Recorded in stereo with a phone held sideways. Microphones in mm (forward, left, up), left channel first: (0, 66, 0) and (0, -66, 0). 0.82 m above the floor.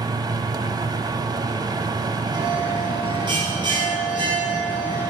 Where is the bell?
35° right (ahead or behind), 7 m.